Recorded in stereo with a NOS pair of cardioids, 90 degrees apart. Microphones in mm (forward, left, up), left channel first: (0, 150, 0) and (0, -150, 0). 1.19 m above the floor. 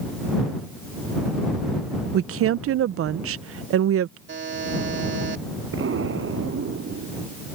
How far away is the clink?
No clink in this recording.